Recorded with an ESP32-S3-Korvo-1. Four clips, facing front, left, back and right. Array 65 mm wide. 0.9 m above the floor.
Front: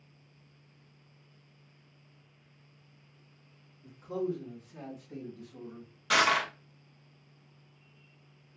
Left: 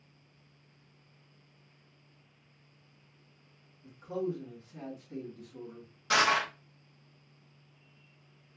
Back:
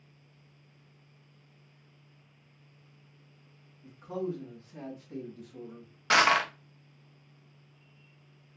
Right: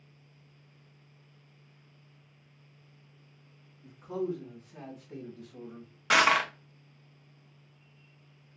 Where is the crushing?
135° right, 0.6 m.